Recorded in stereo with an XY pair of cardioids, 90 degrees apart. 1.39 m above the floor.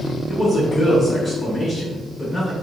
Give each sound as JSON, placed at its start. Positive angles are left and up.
{"t": 0.3, "sound": "a man speaking", "azimuth_deg": 20, "distance_m": 1.0}